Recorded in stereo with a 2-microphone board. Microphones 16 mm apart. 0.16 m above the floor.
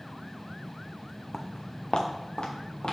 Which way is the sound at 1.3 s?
40° left (ahead or behind).